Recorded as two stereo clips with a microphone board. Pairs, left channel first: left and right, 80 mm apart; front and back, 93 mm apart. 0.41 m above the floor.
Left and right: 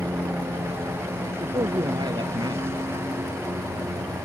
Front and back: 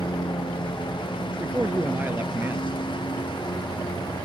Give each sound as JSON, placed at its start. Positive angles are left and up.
{"t": 0.0, "sound": "a lawn mower", "azimuth_deg": -30}
{"t": 1.4, "sound": "a man speaking", "azimuth_deg": -110}